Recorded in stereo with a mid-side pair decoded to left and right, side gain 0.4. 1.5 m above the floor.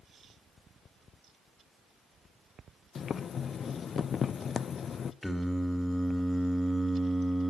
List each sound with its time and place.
3.0 s boiling: 55° left, 0.6 m
5.2 s singing: 10° left, 2.5 m